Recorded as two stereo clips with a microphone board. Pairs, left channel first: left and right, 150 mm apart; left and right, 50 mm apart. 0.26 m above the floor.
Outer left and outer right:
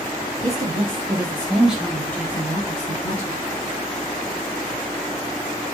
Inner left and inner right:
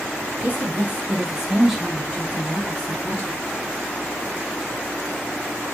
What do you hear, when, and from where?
0.4 s a woman speaking: 50° right (ahead or behind), 2.5 m; by 3.4 s 45° left (ahead or behind), 2.5 m